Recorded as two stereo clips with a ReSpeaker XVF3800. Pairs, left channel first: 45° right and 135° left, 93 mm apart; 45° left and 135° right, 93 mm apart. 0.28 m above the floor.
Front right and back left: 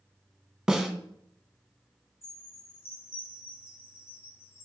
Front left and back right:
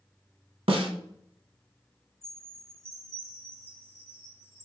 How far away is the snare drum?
About 0.7 m.